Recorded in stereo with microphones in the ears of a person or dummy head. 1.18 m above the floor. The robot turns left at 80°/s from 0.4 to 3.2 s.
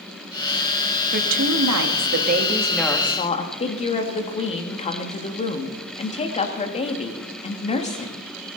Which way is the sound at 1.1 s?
45° right.